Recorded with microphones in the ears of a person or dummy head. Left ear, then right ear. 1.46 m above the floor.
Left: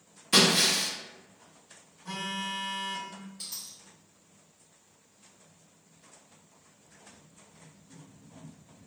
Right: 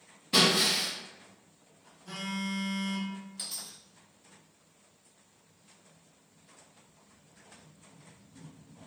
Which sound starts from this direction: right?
A dropped coin, at 3.4 s.